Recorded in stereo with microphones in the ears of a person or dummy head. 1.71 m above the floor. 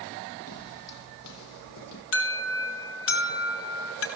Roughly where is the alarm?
Left.